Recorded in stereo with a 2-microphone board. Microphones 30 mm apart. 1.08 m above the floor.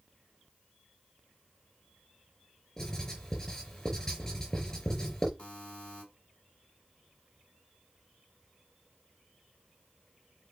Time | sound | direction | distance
2.8 | writing | 20° left (ahead or behind) | 4.5 m
5.4 | a buzzer | 40° left (ahead or behind) | 2.5 m